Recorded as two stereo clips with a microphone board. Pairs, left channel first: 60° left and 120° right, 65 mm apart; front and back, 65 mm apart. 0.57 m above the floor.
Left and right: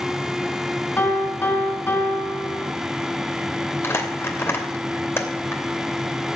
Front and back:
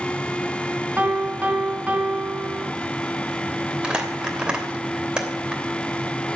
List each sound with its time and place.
1.0 s a piano: 110° left, 4 m
3.8 s crumpling: 105° left, 2.5 m